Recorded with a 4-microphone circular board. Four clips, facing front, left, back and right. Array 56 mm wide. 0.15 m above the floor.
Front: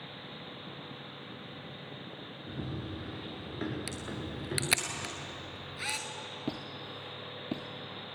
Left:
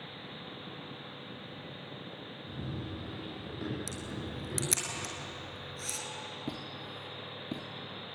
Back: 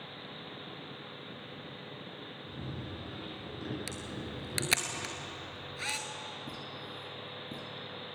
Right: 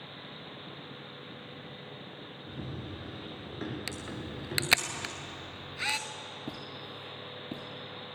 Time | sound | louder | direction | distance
2.5 | running footsteps | left 1 dB, front 4 dB | 20° right | 6.5 m
3.9 | a camera shutter | right 1 dB, front 1 dB | 90° right | 1.0 m
6.5 | a squeak | left 1 dB, front 4 dB | 5° left | 1.7 m